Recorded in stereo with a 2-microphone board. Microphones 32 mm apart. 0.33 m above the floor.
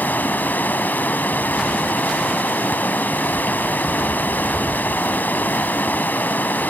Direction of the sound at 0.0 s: 75° left (ahead or behind).